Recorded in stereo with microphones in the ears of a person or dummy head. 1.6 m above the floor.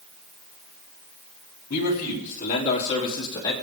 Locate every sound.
1.7 s a man speaking: 50° left (ahead or behind), 4 m; by 3.5 s 20° left (ahead or behind), 4 m